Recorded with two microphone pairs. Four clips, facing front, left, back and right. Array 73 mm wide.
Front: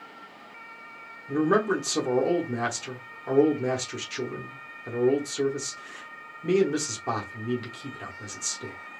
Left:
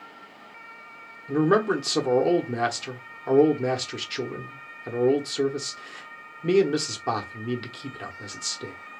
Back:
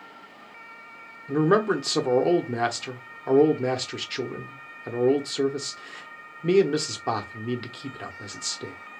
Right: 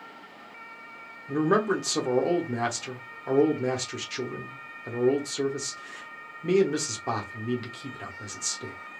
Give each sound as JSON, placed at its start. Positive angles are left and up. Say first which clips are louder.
{"t": 1.3, "sound": "a man speaking", "louder": "left 2 dB, back 2 dB", "azimuth_deg": 155, "distance_m": 0.9}